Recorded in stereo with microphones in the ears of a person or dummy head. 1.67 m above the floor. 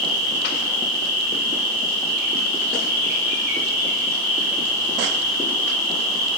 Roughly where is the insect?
Left.